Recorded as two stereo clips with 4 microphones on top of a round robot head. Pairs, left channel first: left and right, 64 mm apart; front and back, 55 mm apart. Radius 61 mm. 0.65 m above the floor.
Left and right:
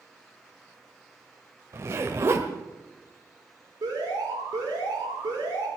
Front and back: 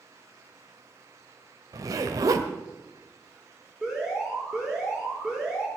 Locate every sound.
1.7 s a zipper: 145° right, 1.3 m
3.8 s an alarm: 105° right, 9.5 m